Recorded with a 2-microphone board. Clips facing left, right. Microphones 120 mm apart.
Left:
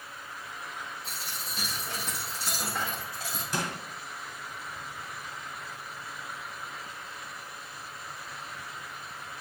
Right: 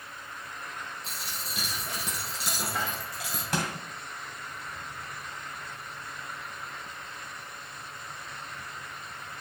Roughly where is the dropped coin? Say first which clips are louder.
Even; right.